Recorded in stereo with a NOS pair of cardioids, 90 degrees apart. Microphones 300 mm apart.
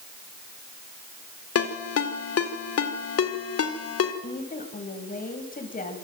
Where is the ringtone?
50° left, 4 m.